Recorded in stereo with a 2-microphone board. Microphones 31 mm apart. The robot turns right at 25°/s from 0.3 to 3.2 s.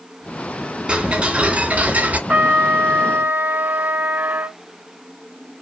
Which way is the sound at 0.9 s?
145° right.